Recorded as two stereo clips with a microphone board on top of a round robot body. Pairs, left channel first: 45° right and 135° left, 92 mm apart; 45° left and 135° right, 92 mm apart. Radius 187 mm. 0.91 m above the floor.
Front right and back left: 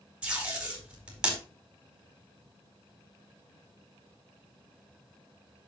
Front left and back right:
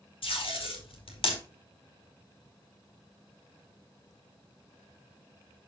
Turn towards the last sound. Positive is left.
turn(degrees=55)